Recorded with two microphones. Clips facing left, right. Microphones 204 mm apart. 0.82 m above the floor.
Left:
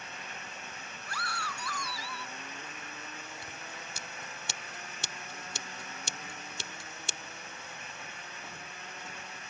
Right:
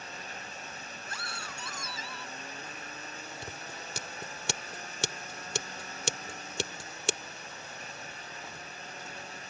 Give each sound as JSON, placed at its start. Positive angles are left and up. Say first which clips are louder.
{"t": 1.1, "sound": "a scream", "louder": "left 5 dB", "side_deg": -25}
{"t": 3.4, "sound": "scissors", "louder": "right 3 dB", "side_deg": -75}